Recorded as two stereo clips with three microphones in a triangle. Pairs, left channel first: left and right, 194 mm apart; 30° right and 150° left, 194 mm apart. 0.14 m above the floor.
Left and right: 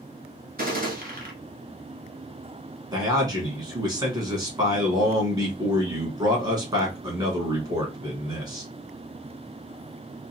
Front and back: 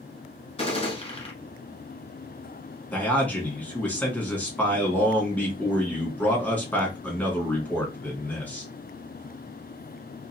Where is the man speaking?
95° right, 1.0 m.